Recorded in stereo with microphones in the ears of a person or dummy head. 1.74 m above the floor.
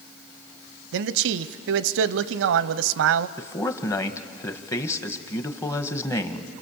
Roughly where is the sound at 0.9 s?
Right.